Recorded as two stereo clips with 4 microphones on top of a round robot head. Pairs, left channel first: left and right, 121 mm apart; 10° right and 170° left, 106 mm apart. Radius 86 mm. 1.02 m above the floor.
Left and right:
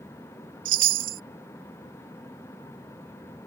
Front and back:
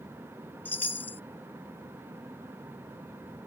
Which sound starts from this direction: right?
A chime, at 0.7 s.